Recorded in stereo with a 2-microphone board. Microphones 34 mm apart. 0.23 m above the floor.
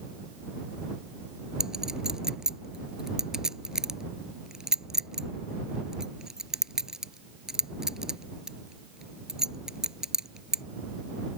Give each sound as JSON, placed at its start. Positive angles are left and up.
{"t": 1.6, "sound": "a clink", "side_deg": -15}